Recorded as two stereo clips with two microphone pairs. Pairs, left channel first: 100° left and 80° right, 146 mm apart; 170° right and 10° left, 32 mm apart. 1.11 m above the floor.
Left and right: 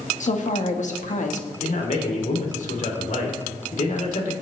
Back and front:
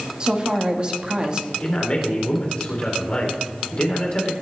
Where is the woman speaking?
70° left, 1.5 m.